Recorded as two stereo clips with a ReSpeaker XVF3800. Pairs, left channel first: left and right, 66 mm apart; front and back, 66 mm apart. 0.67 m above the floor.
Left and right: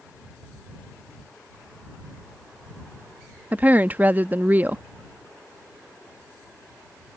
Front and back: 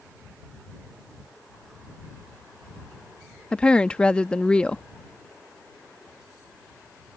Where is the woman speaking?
60° right.